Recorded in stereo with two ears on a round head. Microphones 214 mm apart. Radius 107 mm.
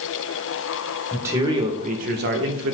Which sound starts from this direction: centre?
A man speaking, at 1.1 s.